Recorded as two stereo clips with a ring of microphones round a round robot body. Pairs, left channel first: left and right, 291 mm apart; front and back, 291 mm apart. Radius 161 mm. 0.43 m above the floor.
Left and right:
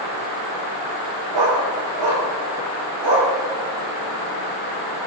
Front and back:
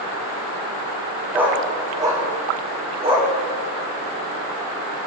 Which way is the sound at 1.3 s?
95° right.